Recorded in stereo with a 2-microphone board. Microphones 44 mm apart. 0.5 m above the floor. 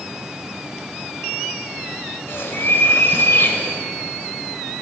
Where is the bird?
65° left (ahead or behind), 1.6 m.